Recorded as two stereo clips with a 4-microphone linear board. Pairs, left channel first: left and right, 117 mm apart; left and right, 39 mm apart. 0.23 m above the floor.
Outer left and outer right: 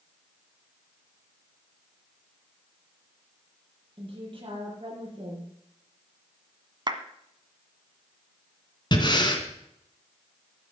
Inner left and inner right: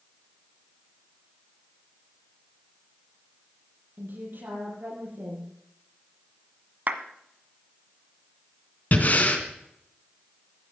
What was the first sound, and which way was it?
A woman speaking, 50° right (ahead or behind).